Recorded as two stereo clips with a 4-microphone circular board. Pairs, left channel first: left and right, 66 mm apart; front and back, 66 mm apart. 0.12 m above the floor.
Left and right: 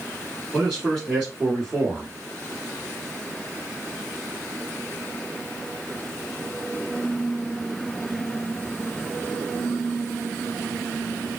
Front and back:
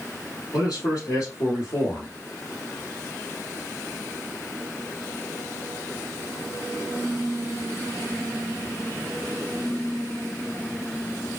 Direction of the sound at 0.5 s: 10° right.